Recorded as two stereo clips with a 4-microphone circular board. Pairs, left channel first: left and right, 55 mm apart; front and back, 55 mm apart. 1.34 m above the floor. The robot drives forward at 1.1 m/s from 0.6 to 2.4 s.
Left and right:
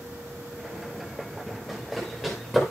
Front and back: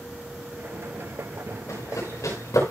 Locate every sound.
1.7 s running footsteps: 5° right, 8 m